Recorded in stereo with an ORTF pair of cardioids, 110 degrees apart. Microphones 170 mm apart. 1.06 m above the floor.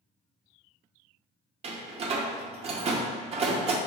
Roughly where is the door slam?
Ahead right.